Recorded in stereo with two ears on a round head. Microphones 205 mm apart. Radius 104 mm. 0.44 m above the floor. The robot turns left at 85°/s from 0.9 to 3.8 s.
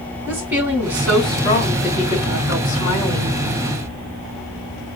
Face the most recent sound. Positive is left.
turn(degrees=-55)